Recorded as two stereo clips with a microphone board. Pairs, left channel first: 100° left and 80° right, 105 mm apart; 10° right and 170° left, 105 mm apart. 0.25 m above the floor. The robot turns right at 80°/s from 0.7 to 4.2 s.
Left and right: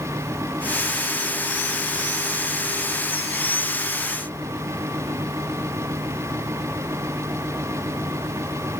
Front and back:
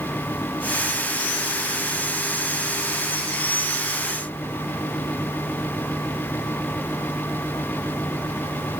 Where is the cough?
I don't hear a cough.